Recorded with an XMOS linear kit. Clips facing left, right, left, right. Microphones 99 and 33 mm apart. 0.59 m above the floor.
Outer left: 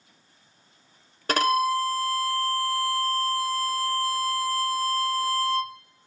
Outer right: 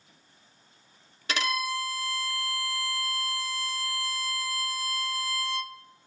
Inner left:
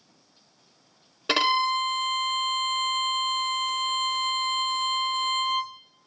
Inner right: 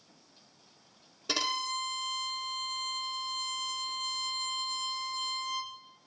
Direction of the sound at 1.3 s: 45° left (ahead or behind).